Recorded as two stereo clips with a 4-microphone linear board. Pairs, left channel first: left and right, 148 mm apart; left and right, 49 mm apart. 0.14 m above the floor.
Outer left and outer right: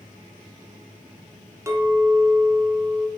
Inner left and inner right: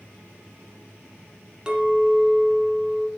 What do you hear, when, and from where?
1.7 s a clink: 20° right (ahead or behind), 1.0 m